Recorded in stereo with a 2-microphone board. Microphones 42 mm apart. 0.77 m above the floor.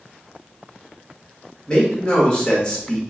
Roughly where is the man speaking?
Centre.